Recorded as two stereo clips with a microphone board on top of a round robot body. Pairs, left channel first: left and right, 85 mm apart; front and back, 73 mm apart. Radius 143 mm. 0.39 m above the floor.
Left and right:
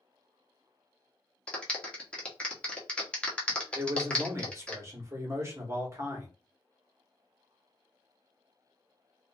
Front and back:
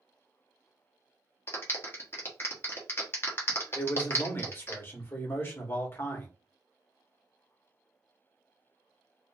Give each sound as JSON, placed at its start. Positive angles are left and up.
{"t": 1.5, "sound": "a clap", "azimuth_deg": 20, "distance_m": 1.2}
{"t": 3.8, "sound": "a man speaking", "azimuth_deg": -45, "distance_m": 1.3}